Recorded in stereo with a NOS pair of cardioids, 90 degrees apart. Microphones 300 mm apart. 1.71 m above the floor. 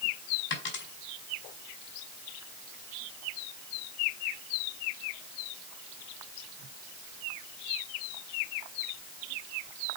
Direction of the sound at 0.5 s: 40° left.